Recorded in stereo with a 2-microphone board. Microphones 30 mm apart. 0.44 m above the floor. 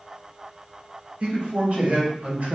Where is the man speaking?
50° right (ahead or behind), 1.8 m; by 2.6 s 55° right (ahead or behind), 1.2 m.